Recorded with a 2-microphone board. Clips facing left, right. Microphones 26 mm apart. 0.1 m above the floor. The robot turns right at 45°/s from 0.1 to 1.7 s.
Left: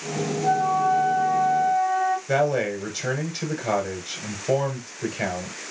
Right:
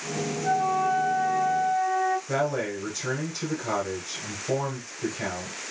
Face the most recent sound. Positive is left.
turn(degrees=25)  # may be behind; listen again after turning